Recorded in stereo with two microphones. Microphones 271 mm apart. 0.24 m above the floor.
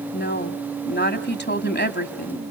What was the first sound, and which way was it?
A woman speaking, 40° left (ahead or behind).